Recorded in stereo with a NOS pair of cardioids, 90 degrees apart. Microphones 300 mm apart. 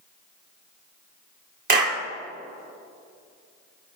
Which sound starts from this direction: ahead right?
A clap, at 1.7 s.